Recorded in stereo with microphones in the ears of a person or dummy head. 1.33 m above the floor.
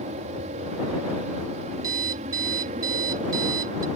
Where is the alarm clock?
20° right (ahead or behind).